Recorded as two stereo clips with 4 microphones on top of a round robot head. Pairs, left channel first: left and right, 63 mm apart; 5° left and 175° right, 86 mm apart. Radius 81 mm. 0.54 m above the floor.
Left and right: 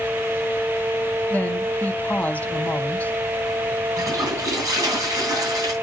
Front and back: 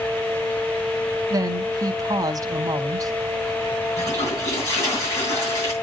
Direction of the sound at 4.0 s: 50° right.